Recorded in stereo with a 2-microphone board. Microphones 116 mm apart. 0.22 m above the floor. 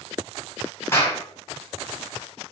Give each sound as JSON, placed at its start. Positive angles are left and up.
{"t": 0.9, "sound": "a clap", "side_deg": 20, "distance_m": 1.3}